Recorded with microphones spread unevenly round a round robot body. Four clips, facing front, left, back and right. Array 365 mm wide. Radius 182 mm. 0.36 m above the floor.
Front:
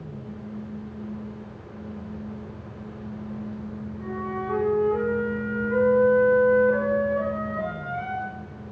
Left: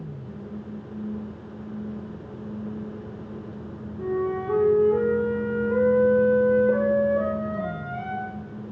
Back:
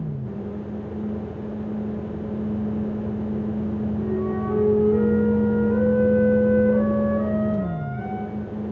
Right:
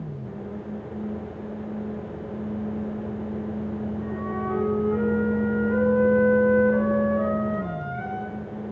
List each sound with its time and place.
4.0 s a flute: 120° left, 9.5 m